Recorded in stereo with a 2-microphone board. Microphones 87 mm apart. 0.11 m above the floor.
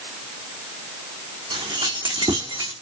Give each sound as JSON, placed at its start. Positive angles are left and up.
{"t": 1.5, "sound": "keys jangling", "side_deg": -70, "distance_m": 4.0}